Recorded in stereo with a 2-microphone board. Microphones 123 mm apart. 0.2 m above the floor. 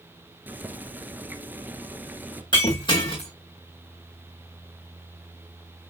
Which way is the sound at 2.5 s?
40° left (ahead or behind).